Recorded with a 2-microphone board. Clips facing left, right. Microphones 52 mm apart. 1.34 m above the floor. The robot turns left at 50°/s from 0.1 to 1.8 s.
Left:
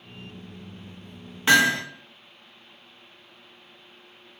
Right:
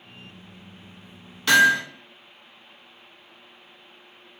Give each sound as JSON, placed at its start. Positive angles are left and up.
{"t": 1.5, "sound": "hammering", "side_deg": 25, "distance_m": 0.8}